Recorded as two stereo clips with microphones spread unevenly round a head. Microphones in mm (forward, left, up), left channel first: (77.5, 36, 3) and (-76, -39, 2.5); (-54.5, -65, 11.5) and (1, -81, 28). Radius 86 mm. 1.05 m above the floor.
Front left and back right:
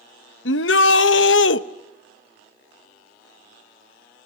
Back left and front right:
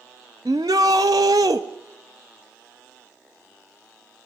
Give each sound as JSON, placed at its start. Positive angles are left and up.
{"t": 0.5, "sound": "a shout", "azimuth_deg": 40, "distance_m": 0.9}